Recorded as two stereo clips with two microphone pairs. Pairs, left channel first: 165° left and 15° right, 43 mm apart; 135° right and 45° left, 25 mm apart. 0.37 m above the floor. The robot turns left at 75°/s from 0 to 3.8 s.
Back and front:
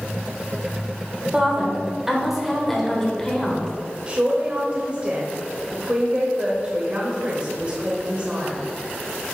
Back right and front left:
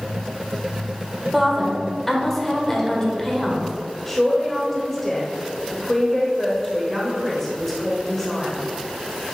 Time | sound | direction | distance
1.3 | a woman speaking | 15° right | 1.4 m
4.1 | a man speaking | 60° right | 1.2 m